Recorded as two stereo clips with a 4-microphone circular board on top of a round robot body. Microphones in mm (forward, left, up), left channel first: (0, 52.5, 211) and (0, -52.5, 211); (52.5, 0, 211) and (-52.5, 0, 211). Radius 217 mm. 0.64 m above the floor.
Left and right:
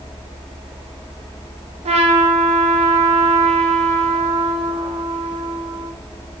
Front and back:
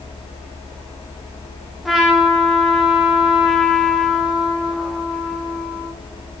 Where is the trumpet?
90° right, 1.1 m.